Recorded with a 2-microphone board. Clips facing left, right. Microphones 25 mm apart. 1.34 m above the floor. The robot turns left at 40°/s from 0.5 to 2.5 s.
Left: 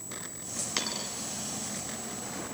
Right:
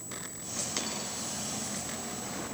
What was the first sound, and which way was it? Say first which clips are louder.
A dropped coin: left 5 dB; 30° left (ahead or behind).